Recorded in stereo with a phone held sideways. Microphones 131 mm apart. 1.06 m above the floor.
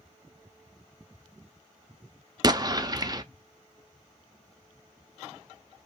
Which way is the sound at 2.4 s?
30° right (ahead or behind).